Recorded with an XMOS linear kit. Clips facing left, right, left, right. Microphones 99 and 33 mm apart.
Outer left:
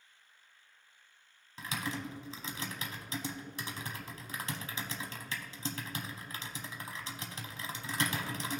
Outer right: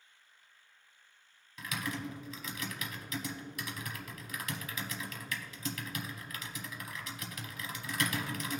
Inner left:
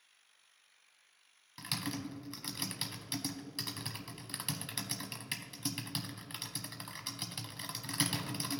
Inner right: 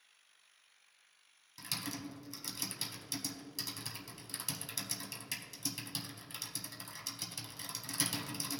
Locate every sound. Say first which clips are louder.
1.6 s typing on a keyboard: even, inner left 3 dB; 30° left (ahead or behind), 0.9 m